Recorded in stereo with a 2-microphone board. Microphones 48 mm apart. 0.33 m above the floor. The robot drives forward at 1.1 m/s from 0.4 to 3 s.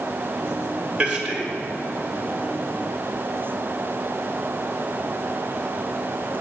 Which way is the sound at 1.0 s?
15° right (ahead or behind).